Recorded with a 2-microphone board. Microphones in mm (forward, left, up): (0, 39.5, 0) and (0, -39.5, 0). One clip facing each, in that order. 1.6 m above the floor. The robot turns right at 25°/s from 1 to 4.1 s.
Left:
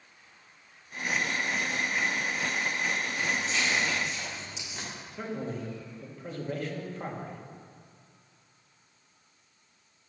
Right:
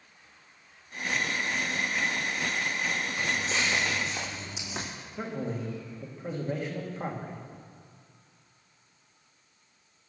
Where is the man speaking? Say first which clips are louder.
Right 1 dB; 15° right (ahead or behind), 2 m.